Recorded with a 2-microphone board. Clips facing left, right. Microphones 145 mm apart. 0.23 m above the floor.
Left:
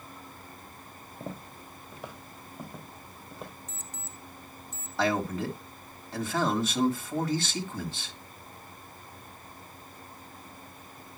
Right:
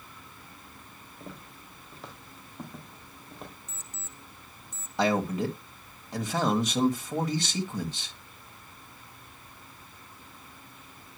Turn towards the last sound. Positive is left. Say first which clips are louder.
# right 2 dB
turn(degrees=-20)  # may be behind; listen again after turning